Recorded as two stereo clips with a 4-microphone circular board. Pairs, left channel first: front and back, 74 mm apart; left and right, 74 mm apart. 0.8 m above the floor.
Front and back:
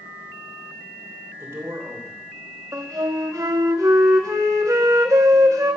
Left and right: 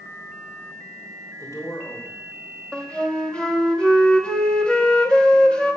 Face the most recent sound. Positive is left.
turn(degrees=160)